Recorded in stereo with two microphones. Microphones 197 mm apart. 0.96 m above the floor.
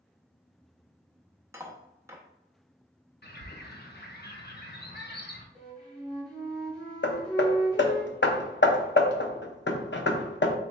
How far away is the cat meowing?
I don't hear a cat meowing.